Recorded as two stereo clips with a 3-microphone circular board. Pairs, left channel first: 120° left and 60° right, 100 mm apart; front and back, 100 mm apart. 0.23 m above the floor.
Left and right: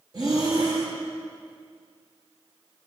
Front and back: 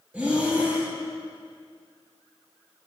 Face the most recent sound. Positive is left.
turn(degrees=-105)